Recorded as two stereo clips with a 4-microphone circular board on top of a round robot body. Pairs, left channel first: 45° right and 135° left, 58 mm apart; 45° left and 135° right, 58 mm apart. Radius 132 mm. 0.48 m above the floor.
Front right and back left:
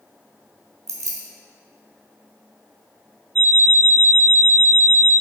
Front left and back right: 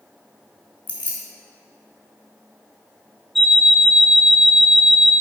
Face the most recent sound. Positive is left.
turn(degrees=130)